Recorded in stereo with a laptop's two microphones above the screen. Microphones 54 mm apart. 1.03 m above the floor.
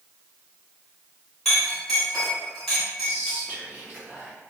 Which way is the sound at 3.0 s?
25° right (ahead or behind).